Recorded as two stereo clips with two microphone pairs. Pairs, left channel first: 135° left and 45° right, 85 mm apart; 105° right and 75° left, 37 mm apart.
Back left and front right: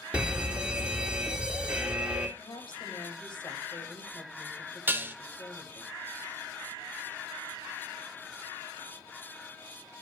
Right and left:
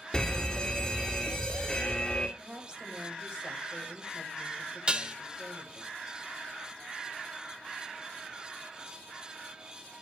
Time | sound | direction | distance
0.1 | a fire alarm | 85° right | 1.9 m
2.4 | a woman speaking | 140° left | 2.5 m
4.9 | dishes clattering | 15° left | 0.8 m